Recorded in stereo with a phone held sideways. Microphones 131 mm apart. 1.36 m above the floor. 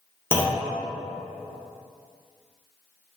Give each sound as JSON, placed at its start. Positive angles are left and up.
{"t": 0.3, "sound": "a clunk", "side_deg": 20, "distance_m": 0.7}